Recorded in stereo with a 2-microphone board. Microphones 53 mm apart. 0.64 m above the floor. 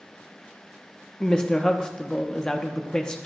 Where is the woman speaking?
15° left (ahead or behind), 0.6 m.